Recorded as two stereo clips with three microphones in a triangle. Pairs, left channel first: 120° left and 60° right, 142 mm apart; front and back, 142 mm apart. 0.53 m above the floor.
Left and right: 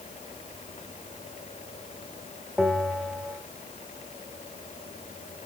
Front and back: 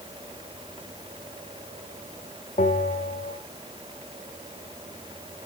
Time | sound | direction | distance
2.6 | a bell | 25° left | 1.5 m